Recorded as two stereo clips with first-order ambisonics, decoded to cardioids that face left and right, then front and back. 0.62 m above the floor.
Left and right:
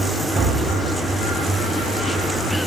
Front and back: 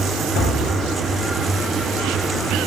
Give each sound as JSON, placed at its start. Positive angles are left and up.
{"t": 0.3, "sound": "a door slam", "azimuth_deg": -25, "distance_m": 8.5}